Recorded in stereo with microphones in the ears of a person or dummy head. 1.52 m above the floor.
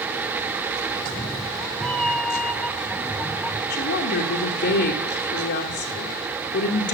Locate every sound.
0.9 s a cat meowing: centre (ahead or behind), 0.8 m
3.7 s a woman speaking: 60° left (ahead or behind), 1.2 m